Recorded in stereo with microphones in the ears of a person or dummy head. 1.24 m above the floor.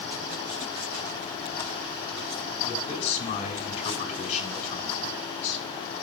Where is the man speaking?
30° left (ahead or behind), 6 m.